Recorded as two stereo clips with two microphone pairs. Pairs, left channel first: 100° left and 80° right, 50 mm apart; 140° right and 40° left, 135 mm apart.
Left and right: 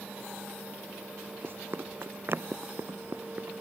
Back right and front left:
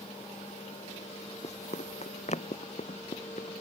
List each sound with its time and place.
1.4 s running footsteps: 115° right; by 3.6 s 110° right